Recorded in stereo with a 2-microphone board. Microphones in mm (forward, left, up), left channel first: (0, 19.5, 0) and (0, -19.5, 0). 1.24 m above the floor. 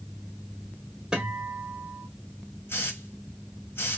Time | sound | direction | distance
1.1 | a guitar | 15° right (ahead or behind) | 1.4 m
2.7 | a hiss | 70° left (ahead or behind) | 0.9 m